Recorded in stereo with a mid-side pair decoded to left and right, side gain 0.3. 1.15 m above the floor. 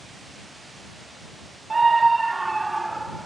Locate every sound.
1.7 s a scream: 40° right; by 3.3 s 15° right